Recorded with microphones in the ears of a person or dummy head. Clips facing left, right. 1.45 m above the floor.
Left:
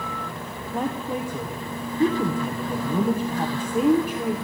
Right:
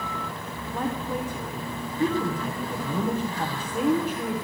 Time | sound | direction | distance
0.7 | a woman speaking | 15° left (ahead or behind) | 0.7 m